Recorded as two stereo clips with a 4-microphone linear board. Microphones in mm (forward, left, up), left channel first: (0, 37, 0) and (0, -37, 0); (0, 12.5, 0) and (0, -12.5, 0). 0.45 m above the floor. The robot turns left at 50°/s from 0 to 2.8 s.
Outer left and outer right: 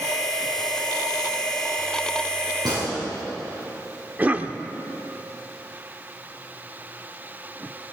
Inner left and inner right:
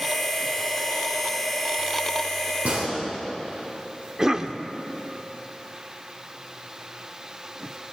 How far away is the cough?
About 0.8 m.